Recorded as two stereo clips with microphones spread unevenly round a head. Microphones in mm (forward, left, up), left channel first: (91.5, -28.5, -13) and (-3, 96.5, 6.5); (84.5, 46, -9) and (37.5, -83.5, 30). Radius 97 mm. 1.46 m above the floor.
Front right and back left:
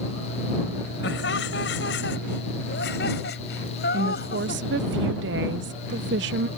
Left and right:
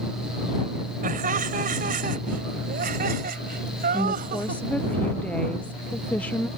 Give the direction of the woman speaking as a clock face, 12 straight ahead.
7 o'clock.